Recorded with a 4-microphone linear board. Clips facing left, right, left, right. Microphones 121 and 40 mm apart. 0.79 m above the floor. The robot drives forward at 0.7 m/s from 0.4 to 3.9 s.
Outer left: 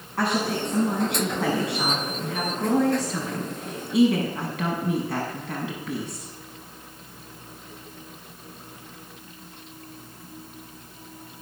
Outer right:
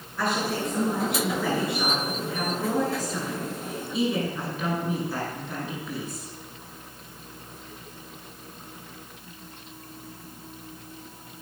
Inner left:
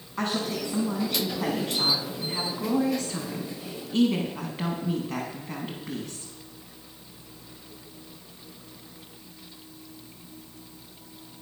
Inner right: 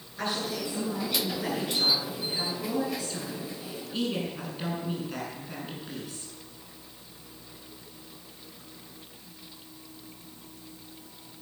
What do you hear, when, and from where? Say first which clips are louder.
0.2 s a woman speaking: outer left 2 dB, inner left 3 dB; 75° left (ahead or behind), 5.5 m; by 6.3 s 80° left, 5.5 m